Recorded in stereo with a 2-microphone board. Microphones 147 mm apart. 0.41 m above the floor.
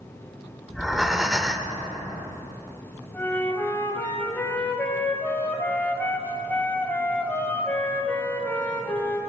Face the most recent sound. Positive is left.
turn(degrees=15)  # may be behind; listen again after turning